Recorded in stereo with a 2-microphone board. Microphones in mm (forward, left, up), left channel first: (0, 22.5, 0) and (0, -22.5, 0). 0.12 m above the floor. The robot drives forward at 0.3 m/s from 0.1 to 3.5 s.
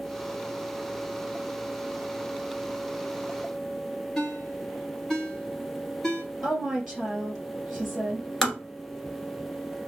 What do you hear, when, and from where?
4.2 s a ringtone: 10° left (ahead or behind), 1.2 m
6.4 s a woman speaking: centre (ahead or behind), 2.0 m
8.4 s tapping: 5° left (ahead or behind), 1.4 m